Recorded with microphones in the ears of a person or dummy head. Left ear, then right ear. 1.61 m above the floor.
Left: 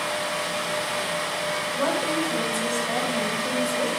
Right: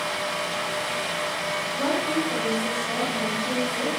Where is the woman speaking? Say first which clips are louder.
Left 1 dB; 70° left (ahead or behind), 9.5 m.